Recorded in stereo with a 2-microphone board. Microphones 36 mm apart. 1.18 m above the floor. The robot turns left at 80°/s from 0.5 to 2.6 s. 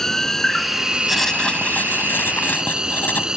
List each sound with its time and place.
0.0 s an insect: 10° left; by 3.4 s 160° right
1.1 s writing: straight behind; by 3.3 s 60° left